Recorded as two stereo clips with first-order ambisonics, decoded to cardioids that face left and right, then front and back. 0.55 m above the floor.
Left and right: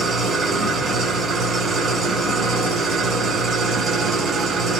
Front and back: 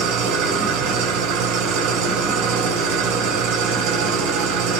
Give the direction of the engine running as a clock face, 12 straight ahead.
5 o'clock.